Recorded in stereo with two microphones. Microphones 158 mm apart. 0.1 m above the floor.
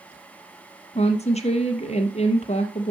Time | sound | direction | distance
0.9 | a woman speaking | 45° left (ahead or behind) | 2.5 m